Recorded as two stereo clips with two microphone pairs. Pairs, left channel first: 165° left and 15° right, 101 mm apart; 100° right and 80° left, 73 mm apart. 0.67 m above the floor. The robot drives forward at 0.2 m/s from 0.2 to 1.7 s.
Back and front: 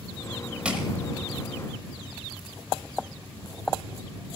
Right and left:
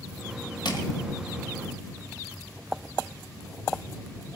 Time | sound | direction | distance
0.7 | crushing | 95° right | 1.8 m